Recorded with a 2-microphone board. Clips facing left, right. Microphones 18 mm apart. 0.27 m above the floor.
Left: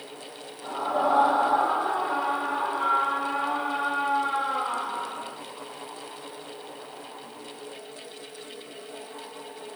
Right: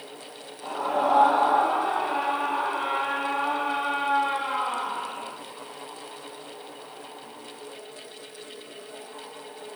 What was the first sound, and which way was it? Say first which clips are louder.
A scream: right 1 dB; 80° right.